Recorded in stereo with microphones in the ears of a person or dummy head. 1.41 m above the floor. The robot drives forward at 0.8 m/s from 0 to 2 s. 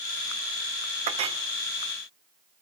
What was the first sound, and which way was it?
A clink, 45° right (ahead or behind).